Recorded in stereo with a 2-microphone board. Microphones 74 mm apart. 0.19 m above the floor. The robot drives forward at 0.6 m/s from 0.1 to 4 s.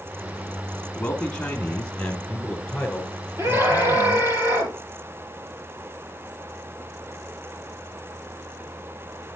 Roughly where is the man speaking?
Left.